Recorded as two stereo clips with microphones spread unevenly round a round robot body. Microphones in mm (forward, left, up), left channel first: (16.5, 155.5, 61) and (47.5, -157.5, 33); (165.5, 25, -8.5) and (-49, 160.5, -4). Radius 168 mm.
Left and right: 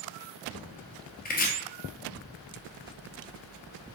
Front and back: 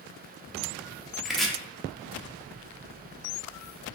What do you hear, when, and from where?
1.2 s chopping: 55° left, 0.7 m